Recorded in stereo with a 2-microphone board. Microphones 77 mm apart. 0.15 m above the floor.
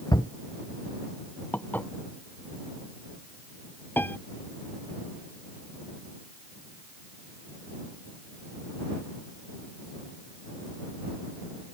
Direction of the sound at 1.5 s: 25° left (ahead or behind).